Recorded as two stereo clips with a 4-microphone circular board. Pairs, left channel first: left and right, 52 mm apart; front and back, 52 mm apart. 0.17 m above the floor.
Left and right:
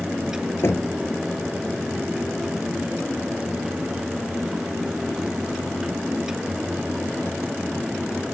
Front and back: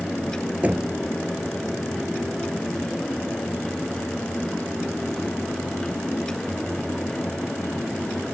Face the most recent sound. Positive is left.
turn(degrees=120)